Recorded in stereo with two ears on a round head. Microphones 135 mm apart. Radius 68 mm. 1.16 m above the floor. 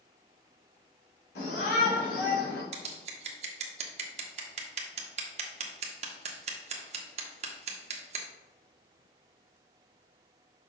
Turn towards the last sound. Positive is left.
turn(degrees=-45)  # may be behind; listen again after turning